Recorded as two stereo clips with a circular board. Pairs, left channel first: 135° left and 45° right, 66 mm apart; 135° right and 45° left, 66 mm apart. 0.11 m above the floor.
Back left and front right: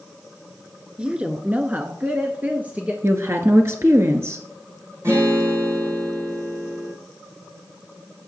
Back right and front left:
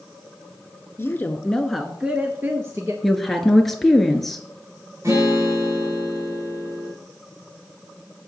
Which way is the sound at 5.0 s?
Straight ahead.